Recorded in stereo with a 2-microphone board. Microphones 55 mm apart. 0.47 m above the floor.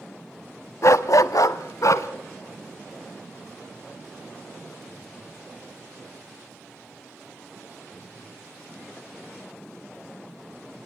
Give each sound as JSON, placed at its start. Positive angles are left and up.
{"t": 0.8, "sound": "a dog barking", "side_deg": 60, "distance_m": 0.8}